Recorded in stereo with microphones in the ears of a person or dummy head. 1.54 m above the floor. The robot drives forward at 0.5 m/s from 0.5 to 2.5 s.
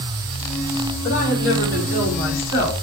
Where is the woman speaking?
75° left (ahead or behind), 3.5 m; by 2.7 s 60° left (ahead or behind), 3.5 m.